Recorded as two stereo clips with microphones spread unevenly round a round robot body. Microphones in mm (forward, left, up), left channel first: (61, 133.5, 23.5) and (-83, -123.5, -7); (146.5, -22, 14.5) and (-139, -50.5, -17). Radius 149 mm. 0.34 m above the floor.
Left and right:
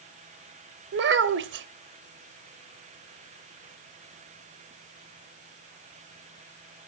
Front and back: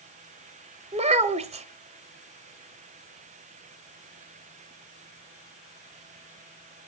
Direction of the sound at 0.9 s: 125° right.